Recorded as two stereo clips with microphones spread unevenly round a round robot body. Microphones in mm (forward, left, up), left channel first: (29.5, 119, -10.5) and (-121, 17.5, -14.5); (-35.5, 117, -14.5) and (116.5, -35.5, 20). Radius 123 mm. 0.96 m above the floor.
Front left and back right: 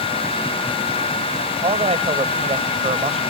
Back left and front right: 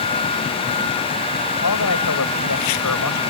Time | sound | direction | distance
1.6 | a man speaking | 160° left | ?